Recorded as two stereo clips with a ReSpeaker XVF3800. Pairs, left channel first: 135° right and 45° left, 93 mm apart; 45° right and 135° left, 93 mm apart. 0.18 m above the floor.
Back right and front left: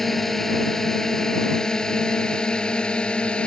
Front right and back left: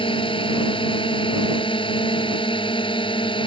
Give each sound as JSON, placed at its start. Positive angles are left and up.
{"t": 0.0, "sound": "a drone", "azimuth_deg": -50}